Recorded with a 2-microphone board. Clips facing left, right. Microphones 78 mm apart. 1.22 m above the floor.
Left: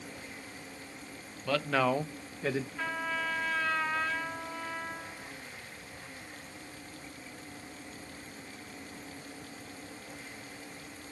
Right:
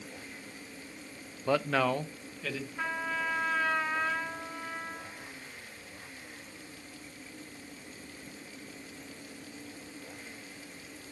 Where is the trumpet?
10° right (ahead or behind), 2.5 m.